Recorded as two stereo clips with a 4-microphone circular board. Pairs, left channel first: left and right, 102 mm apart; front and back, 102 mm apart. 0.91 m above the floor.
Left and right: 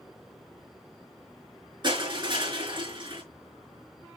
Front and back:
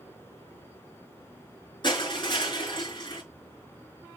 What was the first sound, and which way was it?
Crushing, 45° right.